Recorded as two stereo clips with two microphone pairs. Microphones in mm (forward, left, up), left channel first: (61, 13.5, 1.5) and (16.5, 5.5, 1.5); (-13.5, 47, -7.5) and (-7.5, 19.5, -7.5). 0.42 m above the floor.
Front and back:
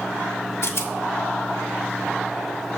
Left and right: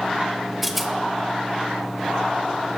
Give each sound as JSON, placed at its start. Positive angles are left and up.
{"t": 0.6, "sound": "a rattle", "azimuth_deg": 5, "distance_m": 0.6}